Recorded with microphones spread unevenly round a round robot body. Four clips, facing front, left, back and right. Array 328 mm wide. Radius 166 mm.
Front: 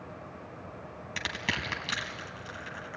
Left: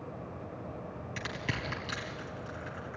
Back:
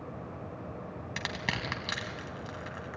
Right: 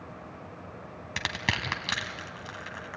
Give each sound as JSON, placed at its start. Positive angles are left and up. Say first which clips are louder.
{"t": 1.2, "sound": "crushing", "louder": "right 5 dB, front 1 dB", "azimuth_deg": -95, "distance_m": 3.5}